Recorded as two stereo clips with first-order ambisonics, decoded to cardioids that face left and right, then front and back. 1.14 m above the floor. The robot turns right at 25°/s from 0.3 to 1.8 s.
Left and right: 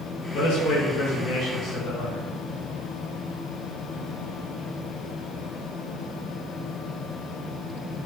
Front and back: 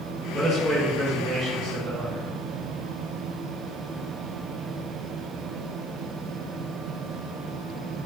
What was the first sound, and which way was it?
A man speaking, 100° left.